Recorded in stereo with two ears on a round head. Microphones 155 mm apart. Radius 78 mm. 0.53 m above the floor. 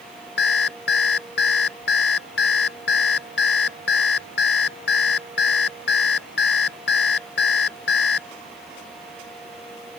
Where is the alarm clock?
65° left (ahead or behind).